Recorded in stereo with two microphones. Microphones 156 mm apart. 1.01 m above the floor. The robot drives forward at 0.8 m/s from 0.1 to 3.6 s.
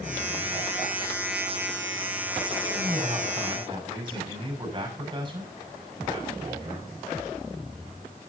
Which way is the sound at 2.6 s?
35° right (ahead or behind).